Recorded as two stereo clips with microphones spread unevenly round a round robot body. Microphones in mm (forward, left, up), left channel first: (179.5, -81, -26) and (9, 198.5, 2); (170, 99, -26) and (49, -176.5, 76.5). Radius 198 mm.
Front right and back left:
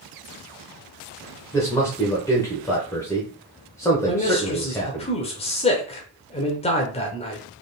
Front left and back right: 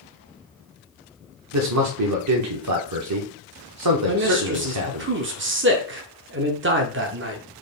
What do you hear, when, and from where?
1.5 s a man speaking: 125° right, 0.8 m
4.1 s a man speaking: 70° right, 0.8 m